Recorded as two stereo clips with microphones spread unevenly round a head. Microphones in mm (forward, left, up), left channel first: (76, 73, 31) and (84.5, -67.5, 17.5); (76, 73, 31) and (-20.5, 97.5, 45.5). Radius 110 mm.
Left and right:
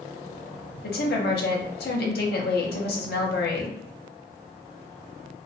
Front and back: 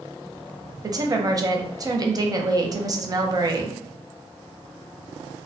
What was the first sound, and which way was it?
A woman speaking, 110° left.